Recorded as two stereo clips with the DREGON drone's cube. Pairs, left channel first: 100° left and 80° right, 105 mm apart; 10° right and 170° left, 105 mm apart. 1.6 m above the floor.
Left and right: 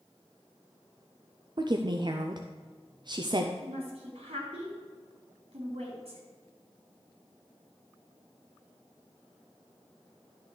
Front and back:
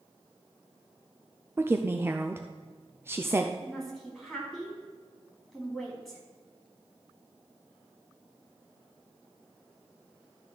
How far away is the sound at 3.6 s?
About 3.5 m.